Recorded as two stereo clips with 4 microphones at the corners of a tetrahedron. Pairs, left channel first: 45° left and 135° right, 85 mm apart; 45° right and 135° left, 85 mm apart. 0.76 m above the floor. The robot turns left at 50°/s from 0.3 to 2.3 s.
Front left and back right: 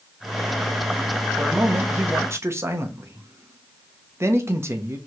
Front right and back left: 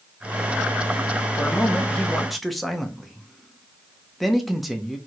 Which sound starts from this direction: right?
A man speaking, at 1.4 s.